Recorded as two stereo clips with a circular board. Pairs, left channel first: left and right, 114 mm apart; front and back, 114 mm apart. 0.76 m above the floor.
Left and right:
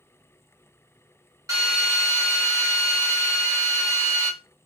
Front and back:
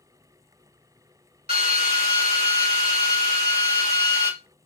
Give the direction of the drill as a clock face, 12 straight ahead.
5 o'clock.